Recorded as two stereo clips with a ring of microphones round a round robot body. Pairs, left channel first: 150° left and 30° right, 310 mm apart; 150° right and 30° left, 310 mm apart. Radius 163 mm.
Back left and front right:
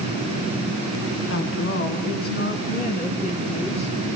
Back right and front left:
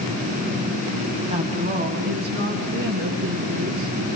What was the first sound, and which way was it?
A woman speaking, 100° left.